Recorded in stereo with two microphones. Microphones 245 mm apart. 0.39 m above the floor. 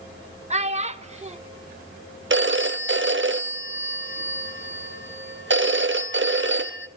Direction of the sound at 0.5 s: 25° right (ahead or behind).